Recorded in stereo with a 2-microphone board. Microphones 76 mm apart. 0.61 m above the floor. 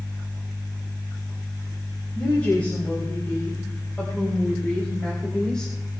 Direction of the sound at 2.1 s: 20° left (ahead or behind).